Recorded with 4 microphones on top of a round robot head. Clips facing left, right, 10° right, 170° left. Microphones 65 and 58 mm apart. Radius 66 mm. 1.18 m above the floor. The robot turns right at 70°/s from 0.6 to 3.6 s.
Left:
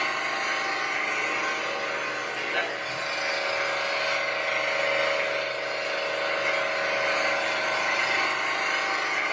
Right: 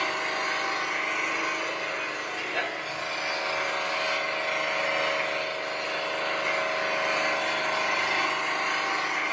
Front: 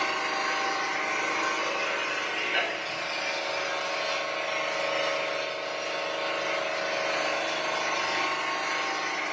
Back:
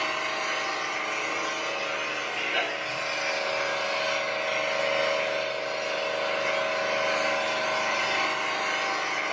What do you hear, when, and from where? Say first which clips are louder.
0.0 s an engine running: left 1 dB, front 1 dB; 35° right, 5 m; by 9.3 s 175° left, 5 m